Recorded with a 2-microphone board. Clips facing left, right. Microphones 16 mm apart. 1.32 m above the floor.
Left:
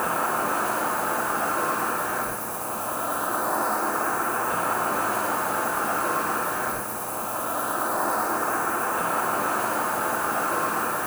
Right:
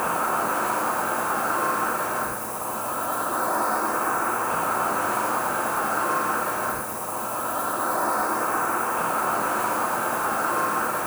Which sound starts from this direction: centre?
An insect, at 0.0 s.